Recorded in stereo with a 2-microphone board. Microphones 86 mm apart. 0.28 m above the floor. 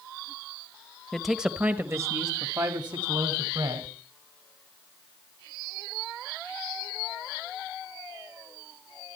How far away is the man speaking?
About 0.9 m.